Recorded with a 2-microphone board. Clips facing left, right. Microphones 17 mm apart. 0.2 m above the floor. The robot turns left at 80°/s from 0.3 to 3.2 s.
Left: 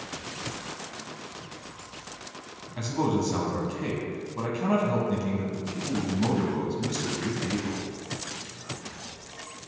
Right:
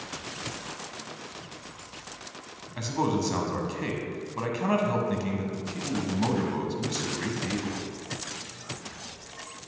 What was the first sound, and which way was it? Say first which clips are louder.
A man speaking: left 1 dB; 10° right (ahead or behind).